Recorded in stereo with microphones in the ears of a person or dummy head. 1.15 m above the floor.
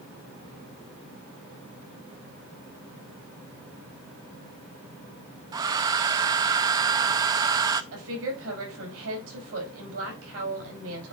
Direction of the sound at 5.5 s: 20° right (ahead or behind).